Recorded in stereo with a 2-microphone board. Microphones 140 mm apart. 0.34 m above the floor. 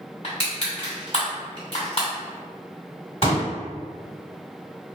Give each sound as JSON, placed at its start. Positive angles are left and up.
{"t": 0.2, "sound": "crushing", "side_deg": 50, "distance_m": 1.9}
{"t": 3.2, "sound": "a pop", "side_deg": 45, "distance_m": 1.9}